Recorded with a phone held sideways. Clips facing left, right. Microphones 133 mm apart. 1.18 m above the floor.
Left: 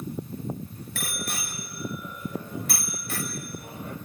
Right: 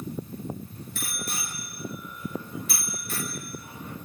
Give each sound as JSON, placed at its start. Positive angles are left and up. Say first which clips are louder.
{"t": 0.9, "sound": "a bicycle bell", "louder": "left 2 dB", "side_deg": 80, "distance_m": 4.0}